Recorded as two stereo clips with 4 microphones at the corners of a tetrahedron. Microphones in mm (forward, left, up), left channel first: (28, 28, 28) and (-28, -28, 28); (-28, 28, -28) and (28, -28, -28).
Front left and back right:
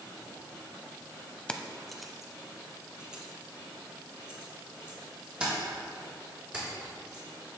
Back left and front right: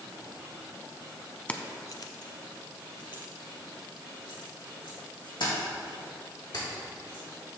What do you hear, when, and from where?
1.5 s keys jangling: 100° left, 0.7 m; by 7.2 s 150° left, 7.5 m